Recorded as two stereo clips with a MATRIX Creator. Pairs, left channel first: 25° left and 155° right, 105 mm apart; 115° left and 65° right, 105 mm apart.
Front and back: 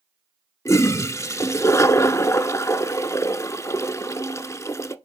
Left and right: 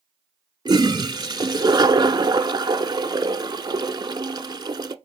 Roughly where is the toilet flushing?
Ahead right.